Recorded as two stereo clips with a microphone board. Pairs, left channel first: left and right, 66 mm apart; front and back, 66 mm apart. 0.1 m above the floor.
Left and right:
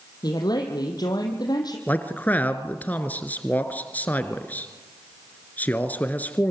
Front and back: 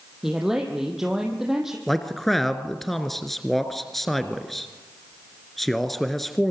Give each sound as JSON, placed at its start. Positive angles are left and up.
{"t": 0.2, "sound": "a woman speaking", "azimuth_deg": 95, "distance_m": 3.5}
{"t": 1.9, "sound": "a man speaking", "azimuth_deg": 80, "distance_m": 1.8}